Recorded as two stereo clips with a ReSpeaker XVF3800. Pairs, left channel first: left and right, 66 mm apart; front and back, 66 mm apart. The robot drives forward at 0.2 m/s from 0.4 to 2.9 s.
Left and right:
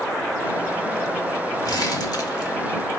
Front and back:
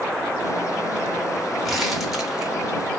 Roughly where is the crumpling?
Left.